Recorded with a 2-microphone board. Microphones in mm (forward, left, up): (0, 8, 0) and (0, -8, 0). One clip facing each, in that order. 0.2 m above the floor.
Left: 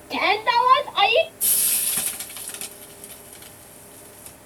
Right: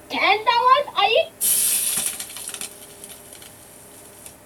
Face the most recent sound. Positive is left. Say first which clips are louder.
# right 1 dB
turn(degrees=-20)  # may be behind; listen again after turning